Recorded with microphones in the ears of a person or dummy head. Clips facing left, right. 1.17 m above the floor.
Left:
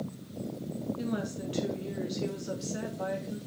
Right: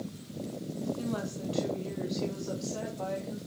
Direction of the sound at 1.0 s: 20° left (ahead or behind).